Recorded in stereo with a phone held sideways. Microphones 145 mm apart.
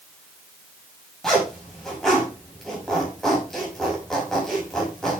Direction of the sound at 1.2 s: 5° left (ahead or behind).